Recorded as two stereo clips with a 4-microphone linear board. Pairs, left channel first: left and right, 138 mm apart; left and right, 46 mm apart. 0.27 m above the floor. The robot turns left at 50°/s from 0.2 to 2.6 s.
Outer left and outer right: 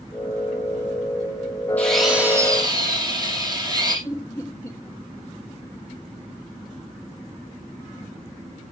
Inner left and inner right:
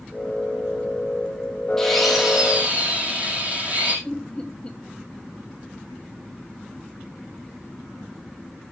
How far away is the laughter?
About 1.6 m.